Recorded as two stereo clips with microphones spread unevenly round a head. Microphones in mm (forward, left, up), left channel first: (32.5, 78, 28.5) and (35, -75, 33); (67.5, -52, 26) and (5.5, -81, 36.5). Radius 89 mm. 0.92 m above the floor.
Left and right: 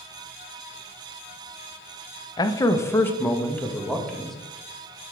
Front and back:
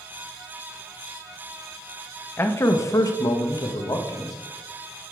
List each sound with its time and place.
2.4 s a man speaking: 45° left, 0.6 m; by 4.4 s 5° left, 1.3 m